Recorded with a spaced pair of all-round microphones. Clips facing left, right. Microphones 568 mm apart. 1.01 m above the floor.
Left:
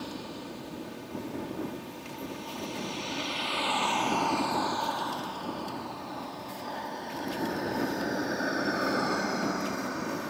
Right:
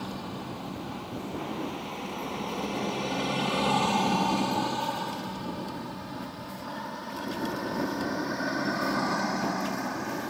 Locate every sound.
0.0 s a vehicle: 75° right (ahead or behind); by 10.3 s 15° right (ahead or behind)